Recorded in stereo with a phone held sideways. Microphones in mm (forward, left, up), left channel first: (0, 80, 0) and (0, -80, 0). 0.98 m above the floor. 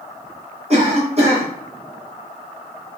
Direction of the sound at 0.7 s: 45° right (ahead or behind).